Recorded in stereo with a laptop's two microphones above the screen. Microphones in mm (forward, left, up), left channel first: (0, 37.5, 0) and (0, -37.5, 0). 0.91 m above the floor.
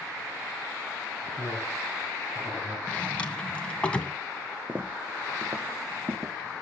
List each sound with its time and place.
1.4 s a man speaking: 20° right (ahead or behind), 8 m; by 2.8 s 15° right (ahead or behind), 6.5 m
2.9 s a drawer: 15° left (ahead or behind), 2.5 m
4.7 s footsteps: 25° right (ahead or behind), 1.7 m; by 6.3 s 40° right (ahead or behind), 3 m